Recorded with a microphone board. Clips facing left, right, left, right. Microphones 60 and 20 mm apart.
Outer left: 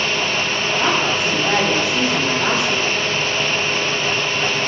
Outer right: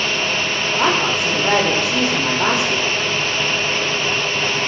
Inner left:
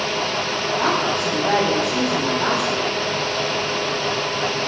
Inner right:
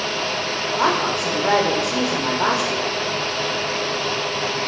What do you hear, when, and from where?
0.8 s a woman speaking: 65° right (ahead or behind), 5.5 m